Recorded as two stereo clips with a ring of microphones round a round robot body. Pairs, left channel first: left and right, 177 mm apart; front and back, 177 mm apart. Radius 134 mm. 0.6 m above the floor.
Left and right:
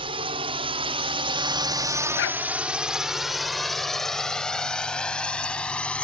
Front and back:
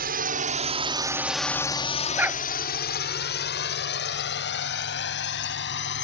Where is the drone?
150° right; by 6.0 s 5° left.